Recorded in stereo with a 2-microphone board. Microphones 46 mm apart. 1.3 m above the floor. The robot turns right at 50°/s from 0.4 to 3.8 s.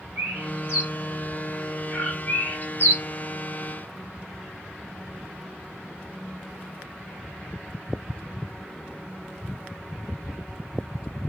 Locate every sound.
0.2 s a bird: 45° right (ahead or behind), 1.2 m; by 3.0 s 65° left (ahead or behind), 1.2 m